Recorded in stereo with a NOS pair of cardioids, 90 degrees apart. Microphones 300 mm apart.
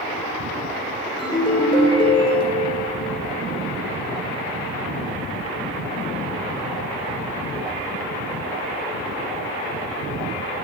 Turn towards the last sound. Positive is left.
turn(degrees=15)